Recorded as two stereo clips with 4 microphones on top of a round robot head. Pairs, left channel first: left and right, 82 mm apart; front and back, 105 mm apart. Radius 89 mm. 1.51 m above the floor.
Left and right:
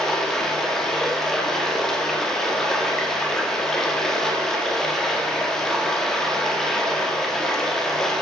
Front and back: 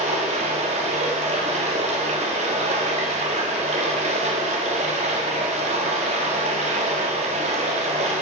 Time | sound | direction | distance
0.0 | running water | 175° left | 1.5 m